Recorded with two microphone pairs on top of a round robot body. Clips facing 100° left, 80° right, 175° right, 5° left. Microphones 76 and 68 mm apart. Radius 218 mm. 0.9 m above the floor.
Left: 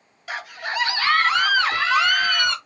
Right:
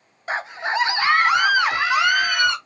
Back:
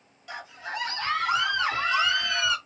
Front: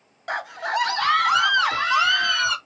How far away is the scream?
About 0.6 m.